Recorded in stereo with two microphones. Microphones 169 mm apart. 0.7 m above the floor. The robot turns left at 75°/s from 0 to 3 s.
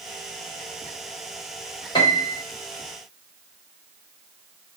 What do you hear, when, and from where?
1.9 s a piano: 25° left (ahead or behind), 1.0 m; by 2.4 s 30° left (ahead or behind), 1.0 m